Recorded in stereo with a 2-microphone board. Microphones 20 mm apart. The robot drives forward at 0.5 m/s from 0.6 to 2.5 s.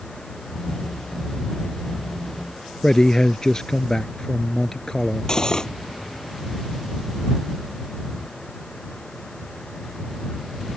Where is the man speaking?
30° left (ahead or behind).